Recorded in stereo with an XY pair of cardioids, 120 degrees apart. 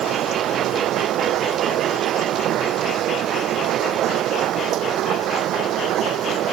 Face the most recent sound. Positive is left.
turn(degrees=-65)